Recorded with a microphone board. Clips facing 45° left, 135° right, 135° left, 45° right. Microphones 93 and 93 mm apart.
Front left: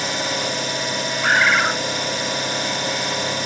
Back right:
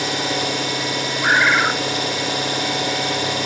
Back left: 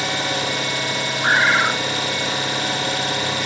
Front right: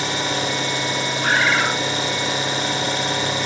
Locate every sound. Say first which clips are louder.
0.0 s an engine running: back right 2 dB, even; 110° right, 2.5 m
1.2 s a bird: back right 1 dB, back left 2 dB; 155° left, 0.7 m